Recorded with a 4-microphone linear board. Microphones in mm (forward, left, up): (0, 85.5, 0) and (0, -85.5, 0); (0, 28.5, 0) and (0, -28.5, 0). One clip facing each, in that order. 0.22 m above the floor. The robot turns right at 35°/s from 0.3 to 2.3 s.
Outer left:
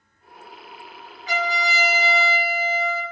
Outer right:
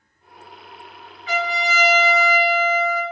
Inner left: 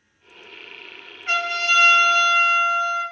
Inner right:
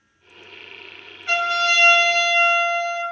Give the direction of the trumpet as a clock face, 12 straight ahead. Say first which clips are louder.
Outer right 2 dB, inner right 2 dB; 8 o'clock.